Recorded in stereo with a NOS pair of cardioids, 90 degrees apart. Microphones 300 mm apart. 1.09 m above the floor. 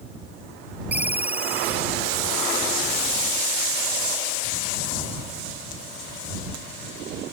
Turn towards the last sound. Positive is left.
turn(degrees=-5)